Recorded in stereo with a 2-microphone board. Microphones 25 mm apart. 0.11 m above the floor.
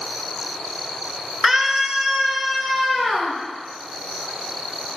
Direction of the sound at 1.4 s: 15° right (ahead or behind).